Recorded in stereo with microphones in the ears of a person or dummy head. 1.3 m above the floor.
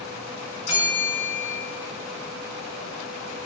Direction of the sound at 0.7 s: 35° left (ahead or behind).